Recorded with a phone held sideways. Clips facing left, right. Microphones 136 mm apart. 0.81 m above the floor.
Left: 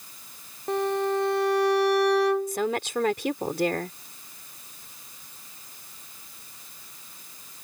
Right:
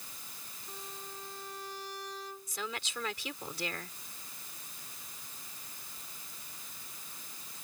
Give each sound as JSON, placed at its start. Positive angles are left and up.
{"t": 0.7, "sound": "a violin", "side_deg": 75}
{"t": 2.5, "sound": "a woman speaking", "side_deg": 60}